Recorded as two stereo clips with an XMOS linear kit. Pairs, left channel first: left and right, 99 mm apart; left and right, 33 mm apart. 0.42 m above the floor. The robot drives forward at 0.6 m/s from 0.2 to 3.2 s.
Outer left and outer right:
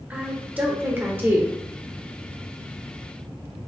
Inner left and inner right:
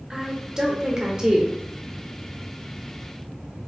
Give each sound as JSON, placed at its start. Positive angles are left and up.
{"t": 0.1, "sound": "a woman speaking", "side_deg": -20, "distance_m": 1.2}